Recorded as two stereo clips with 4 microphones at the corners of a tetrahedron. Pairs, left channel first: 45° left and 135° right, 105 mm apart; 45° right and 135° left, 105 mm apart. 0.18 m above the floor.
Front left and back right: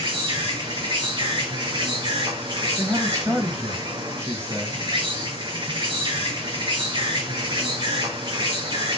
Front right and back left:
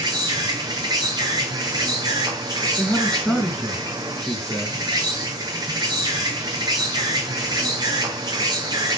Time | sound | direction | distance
0.0 | an insect | 175° right | 2 m
2.8 | a man speaking | 125° right | 1.8 m